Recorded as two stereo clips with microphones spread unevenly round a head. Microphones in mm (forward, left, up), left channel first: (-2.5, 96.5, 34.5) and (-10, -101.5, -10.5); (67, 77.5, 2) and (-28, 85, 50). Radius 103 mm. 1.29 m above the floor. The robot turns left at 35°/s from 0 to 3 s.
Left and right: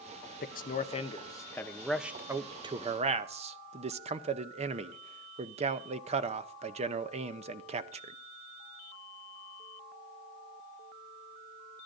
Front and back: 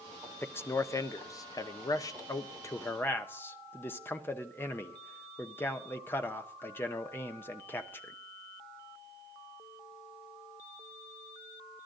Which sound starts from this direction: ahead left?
A man speaking, at 0.4 s.